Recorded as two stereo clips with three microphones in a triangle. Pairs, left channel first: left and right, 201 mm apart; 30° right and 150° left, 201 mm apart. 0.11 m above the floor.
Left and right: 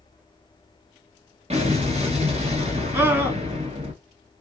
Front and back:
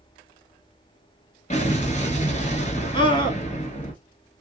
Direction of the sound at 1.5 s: 60° right.